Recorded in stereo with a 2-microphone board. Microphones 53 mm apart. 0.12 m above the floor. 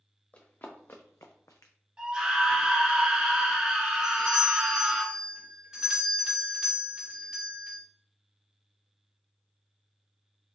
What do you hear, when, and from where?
0.3 s running footsteps: 30° left (ahead or behind), 1.2 m; by 1.7 s 70° left (ahead or behind), 0.7 m
2.0 s a scream: 15° right (ahead or behind), 1.2 m
4.0 s a doorbell: 15° right (ahead or behind), 1.9 m